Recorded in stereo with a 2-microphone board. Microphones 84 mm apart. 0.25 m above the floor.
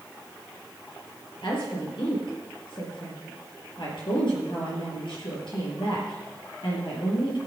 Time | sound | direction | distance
1.4 | a woman speaking | 70° left (ahead or behind) | 6.5 m